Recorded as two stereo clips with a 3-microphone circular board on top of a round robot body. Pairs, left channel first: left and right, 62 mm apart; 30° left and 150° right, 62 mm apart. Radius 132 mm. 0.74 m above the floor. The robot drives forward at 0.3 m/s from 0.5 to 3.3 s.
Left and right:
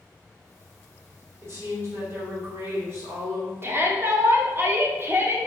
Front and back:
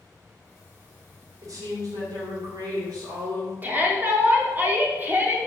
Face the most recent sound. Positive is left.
turn(degrees=-110)